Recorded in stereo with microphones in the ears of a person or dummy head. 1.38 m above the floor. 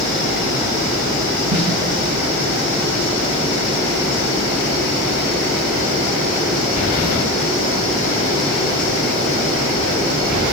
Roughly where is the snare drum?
Right.